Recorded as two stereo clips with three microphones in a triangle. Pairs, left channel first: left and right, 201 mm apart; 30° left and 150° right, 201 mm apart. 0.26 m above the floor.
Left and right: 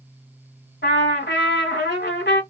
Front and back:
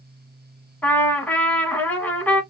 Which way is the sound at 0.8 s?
110° left.